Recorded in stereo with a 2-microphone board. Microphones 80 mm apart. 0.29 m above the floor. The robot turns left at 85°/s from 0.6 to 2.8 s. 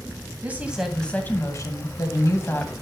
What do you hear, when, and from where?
0.4 s a woman speaking: 155° right, 2 m; by 2.7 s 20° left, 2 m